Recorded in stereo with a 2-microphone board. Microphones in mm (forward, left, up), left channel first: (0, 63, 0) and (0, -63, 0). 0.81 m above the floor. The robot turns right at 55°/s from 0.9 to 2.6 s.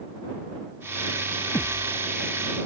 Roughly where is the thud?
Left.